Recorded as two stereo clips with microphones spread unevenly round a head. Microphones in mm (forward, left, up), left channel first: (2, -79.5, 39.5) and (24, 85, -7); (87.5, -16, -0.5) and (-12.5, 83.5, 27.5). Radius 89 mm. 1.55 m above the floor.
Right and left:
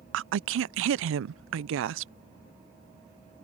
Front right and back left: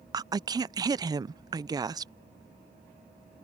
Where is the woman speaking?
75° left.